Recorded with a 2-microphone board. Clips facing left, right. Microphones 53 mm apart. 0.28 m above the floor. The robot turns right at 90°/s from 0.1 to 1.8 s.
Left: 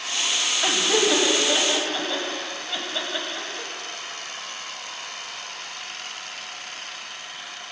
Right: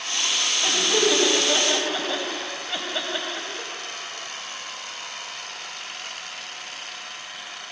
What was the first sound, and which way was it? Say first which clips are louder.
Laughter: even; 35° left (ahead or behind).